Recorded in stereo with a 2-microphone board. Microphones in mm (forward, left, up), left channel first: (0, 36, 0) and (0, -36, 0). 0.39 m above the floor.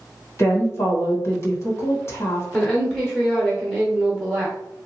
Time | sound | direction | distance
0.4 | a woman speaking | 40° left (ahead or behind) | 1.2 m
2.5 | a woman speaking | 5° left (ahead or behind) | 0.9 m